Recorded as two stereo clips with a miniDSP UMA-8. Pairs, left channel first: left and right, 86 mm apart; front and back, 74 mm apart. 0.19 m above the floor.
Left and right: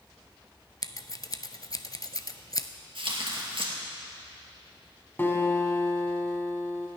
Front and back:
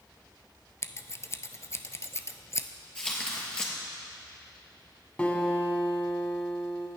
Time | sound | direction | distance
0.8 | scissors | 50° left | 0.6 m
3.0 | tearing paper | 80° right | 2.5 m
5.2 | a guitar | 55° left | 1.6 m